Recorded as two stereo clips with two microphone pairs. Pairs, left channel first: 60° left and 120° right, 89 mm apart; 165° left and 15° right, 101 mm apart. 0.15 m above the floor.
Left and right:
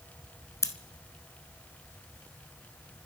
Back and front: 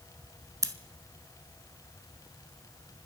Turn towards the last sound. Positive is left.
turn(degrees=20)